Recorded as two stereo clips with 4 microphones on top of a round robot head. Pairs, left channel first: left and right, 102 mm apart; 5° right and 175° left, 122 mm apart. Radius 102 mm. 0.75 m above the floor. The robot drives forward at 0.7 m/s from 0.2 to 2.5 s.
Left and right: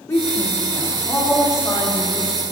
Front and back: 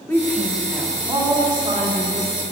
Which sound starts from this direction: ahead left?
A woman speaking, at 0.1 s.